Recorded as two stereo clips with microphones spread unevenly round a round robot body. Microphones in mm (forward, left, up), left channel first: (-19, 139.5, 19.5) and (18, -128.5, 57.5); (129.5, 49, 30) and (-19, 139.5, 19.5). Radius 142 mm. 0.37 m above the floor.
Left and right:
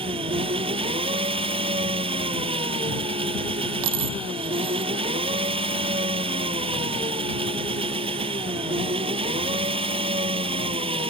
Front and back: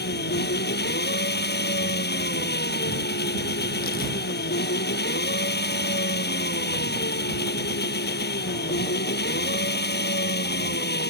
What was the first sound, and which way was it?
An engine running, 10° right.